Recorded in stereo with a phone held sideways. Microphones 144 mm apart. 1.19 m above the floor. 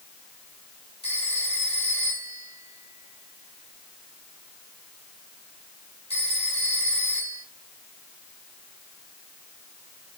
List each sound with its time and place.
1.0 s a phone ringing: 45° left (ahead or behind), 3 m